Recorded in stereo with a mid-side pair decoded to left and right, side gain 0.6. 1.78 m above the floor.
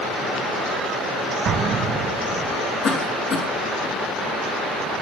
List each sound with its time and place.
1.4 s an explosion: 50° right, 2.5 m
2.8 s a cough: 45° left, 3.5 m